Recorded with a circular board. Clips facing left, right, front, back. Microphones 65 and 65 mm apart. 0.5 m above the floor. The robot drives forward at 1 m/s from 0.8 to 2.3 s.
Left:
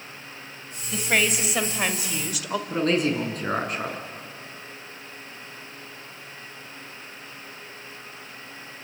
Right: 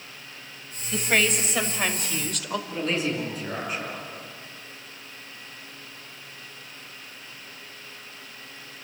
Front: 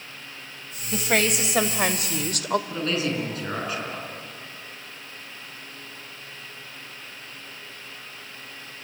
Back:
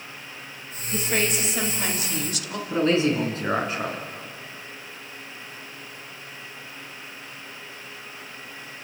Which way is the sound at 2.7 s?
120° left.